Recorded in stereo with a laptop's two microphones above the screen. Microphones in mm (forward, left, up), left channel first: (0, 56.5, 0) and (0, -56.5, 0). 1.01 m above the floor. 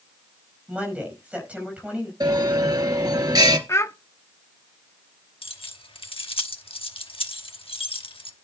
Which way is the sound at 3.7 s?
25° left (ahead or behind).